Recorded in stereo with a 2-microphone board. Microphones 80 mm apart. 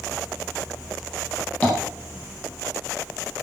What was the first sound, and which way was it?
Tapping, 20° left (ahead or behind).